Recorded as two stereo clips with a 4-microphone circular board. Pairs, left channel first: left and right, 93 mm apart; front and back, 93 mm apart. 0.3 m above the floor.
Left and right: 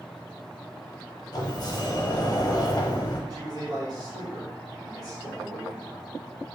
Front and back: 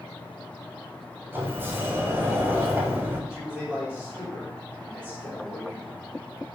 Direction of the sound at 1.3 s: 120° left.